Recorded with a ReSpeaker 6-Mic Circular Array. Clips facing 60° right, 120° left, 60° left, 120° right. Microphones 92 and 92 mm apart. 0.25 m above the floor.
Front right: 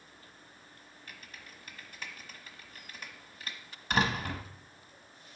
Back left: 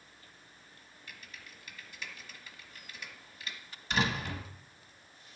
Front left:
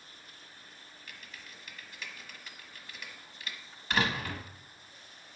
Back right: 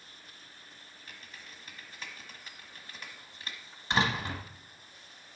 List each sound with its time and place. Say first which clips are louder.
1.1 s typing on a keyboard: even, even; 80° right, 1.2 m
3.9 s a door slam: front right 2 dB, back right 1 dB; 60° right, 1.1 m